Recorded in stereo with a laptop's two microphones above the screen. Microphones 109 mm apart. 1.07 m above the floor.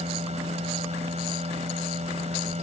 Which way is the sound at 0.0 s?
85° right.